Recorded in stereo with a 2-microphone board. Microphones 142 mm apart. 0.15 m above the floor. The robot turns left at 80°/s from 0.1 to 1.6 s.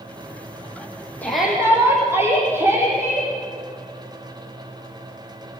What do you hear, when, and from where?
1.2 s a shout: 10° left, 8 m; by 3.3 s 20° right, 8 m